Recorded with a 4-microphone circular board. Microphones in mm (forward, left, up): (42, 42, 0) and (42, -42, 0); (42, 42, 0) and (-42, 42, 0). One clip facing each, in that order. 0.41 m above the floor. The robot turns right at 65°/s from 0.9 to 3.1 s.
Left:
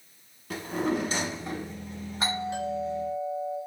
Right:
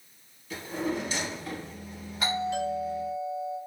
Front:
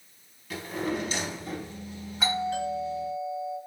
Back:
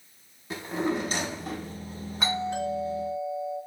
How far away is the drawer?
About 0.6 m.